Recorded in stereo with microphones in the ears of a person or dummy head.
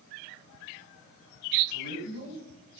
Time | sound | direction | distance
1.7 | a man speaking | 80° right | 9 m